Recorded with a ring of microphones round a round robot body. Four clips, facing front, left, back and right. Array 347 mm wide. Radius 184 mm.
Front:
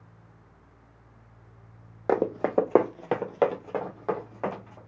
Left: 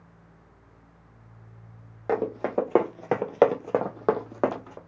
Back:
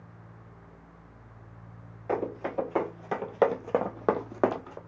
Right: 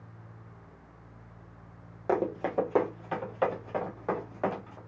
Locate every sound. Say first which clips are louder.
2.1 s running footsteps: left 2 dB, front 7 dB; 5° left, 1.1 m; by 4.8 s 140° left, 1.5 m